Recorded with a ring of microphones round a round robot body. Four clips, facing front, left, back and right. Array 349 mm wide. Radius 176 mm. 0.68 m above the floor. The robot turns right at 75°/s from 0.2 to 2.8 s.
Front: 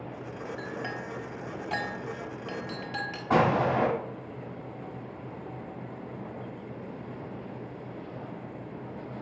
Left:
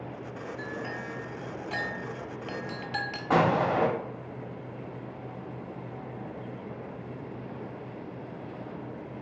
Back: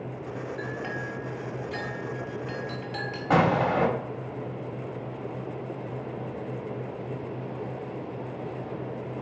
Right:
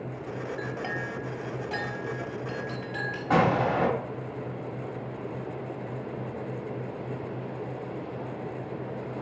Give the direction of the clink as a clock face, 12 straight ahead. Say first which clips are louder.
Right 3 dB, back 3 dB; 3 o'clock.